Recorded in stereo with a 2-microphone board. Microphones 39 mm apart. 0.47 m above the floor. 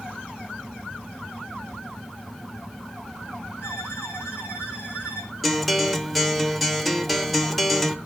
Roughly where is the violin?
Left.